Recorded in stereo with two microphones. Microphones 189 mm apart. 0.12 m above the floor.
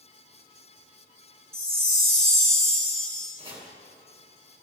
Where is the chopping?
30° right (ahead or behind), 1.7 m.